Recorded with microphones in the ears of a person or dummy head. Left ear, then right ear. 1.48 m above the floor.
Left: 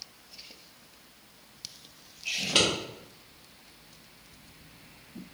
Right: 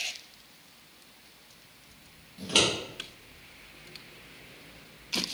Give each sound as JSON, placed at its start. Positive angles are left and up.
{"t": 2.4, "sound": "scissors", "side_deg": -5, "distance_m": 1.2}